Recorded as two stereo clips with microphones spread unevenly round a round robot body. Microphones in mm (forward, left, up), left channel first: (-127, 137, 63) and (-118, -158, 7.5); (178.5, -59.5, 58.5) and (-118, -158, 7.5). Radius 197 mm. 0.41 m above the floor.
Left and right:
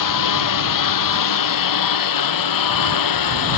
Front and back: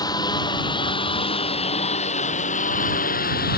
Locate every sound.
0.0 s a lawn mower: 100° left; by 3.6 s 85° left